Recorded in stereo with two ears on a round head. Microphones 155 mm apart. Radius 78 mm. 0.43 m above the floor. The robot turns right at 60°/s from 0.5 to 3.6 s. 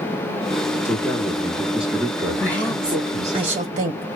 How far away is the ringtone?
No ringtone in this recording.